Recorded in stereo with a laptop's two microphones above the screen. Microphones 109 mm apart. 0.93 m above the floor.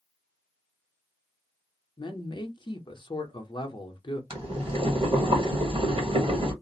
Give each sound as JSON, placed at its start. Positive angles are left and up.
{"t": 2.0, "sound": "a man speaking", "side_deg": 45, "distance_m": 0.7}
{"t": 4.3, "sound": "boiling", "side_deg": -55, "distance_m": 1.5}